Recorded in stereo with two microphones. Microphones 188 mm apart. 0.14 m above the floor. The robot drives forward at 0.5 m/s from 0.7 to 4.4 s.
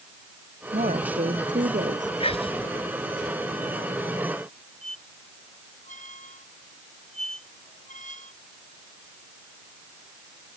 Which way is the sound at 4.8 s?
40° left (ahead or behind).